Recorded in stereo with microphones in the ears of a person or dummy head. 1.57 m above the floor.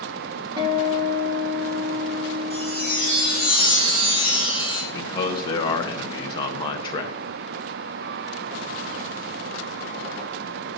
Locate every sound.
0.6 s a guitar: 20° right (ahead or behind), 1.5 m
2.5 s a chime: 60° left (ahead or behind), 4 m
4.9 s a man speaking: 30° left (ahead or behind), 0.9 m